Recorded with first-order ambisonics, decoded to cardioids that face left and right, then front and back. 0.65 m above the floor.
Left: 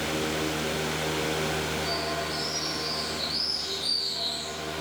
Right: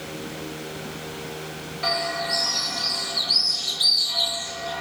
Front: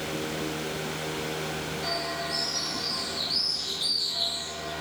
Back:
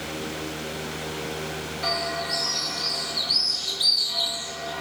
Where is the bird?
125° right, 2.5 m.